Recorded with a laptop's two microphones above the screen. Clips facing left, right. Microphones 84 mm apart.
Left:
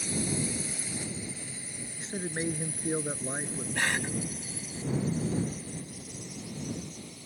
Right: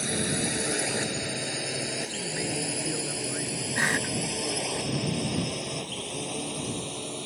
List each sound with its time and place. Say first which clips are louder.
0.0 s a drone: right 3 dB; 70° right (ahead or behind); by 7.3 s 75° right (ahead or behind)
2.0 s a man speaking: right 1 dB; 30° left (ahead or behind)
3.8 s a cough: right 3 dB; 20° right (ahead or behind)